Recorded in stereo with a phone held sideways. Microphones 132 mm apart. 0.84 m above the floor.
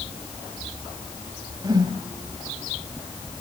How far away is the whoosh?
About 2 m.